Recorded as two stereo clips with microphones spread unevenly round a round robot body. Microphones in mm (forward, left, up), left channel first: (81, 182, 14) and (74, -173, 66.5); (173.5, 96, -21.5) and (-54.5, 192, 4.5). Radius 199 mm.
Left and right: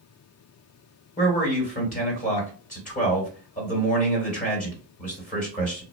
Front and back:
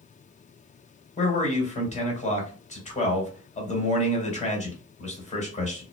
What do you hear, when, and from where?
1.2 s a man speaking: 30° left, 2 m